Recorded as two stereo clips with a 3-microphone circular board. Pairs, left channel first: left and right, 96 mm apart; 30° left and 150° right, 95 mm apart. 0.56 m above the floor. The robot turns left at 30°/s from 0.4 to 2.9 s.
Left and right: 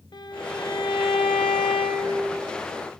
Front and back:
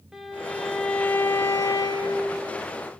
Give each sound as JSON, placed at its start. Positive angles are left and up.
{"t": 0.1, "sound": "a violin", "azimuth_deg": 125, "distance_m": 2.0}